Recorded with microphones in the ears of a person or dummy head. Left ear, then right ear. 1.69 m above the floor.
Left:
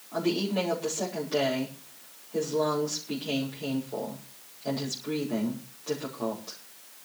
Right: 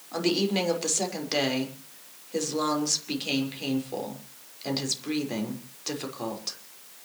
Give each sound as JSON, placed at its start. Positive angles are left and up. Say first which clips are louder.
{"t": 0.1, "sound": "a woman speaking", "louder": "right 2 dB", "side_deg": -65, "distance_m": 5.5}